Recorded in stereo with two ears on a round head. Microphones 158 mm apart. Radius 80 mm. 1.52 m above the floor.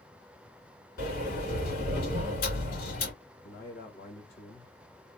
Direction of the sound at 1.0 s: 60° left (ahead or behind).